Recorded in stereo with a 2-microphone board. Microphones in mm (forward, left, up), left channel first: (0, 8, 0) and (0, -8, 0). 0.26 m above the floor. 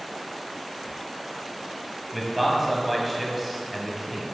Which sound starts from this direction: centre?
A man speaking, at 2.1 s.